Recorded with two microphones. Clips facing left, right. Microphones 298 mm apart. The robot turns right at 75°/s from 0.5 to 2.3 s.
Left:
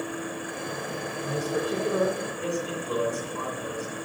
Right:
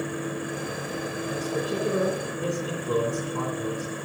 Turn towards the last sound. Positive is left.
turn(degrees=-130)